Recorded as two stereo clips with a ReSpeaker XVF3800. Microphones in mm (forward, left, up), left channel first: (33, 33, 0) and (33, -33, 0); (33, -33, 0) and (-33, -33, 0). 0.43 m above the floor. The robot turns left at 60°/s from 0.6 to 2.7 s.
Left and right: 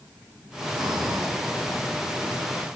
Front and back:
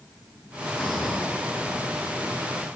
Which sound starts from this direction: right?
Breathing, at 0.7 s.